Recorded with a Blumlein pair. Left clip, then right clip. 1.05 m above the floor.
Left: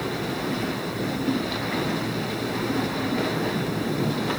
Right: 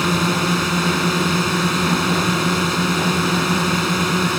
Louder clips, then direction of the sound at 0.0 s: Right 9 dB; 45° right.